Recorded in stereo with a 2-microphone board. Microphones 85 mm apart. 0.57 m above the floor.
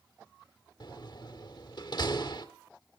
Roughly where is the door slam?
Left.